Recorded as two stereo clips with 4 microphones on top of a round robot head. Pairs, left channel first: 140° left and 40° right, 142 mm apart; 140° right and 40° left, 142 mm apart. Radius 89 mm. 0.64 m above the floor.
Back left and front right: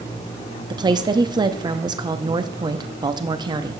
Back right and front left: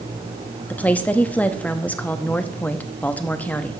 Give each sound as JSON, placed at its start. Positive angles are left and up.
{"t": 0.7, "sound": "a woman speaking", "azimuth_deg": -70, "distance_m": 1.0}